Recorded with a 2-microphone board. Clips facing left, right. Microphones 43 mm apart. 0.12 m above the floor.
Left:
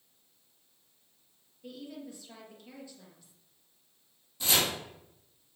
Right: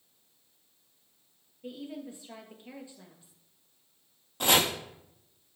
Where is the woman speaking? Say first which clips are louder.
Right 3 dB; 25° right (ahead or behind), 2 m.